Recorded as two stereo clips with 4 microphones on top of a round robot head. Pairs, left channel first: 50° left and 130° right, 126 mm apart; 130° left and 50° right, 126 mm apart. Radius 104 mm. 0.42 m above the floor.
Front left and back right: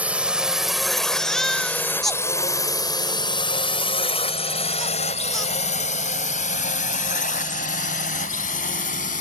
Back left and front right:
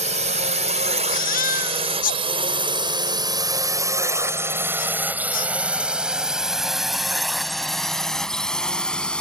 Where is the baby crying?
140° left.